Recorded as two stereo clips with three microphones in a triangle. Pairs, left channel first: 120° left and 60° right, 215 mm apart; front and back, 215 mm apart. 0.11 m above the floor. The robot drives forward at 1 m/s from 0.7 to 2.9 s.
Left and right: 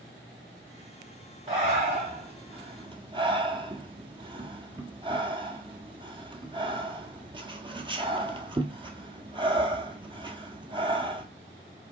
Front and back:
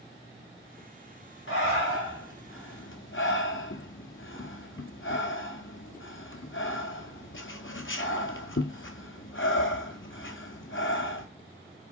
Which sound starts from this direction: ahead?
Breathing, at 1.5 s.